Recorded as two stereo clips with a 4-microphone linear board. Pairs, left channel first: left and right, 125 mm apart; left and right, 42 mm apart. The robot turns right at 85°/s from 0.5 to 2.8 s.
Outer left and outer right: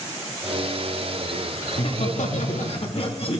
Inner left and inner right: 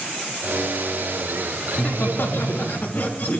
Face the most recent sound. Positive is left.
turn(degrees=130)